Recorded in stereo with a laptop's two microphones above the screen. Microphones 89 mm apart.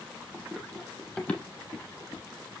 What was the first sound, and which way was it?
Running footsteps, centre (ahead or behind).